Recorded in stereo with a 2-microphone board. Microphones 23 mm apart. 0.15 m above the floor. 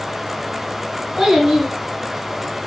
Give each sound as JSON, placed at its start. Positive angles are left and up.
{"t": 1.2, "sound": "a child speaking", "side_deg": -20, "distance_m": 1.1}